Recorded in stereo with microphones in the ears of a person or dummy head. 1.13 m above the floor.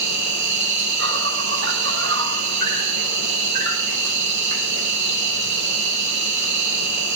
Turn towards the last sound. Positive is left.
turn(degrees=-65)  # may be behind; listen again after turning